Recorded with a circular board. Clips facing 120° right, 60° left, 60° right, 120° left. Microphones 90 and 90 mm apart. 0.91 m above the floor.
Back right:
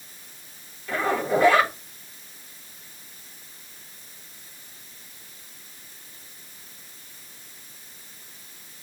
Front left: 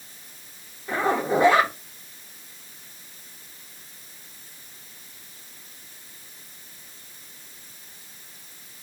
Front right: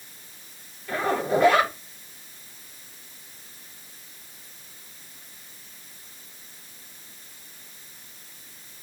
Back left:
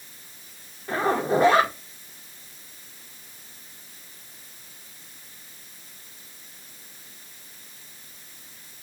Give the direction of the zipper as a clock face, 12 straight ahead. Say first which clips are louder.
Front left 1 dB, back left 1 dB; 9 o'clock.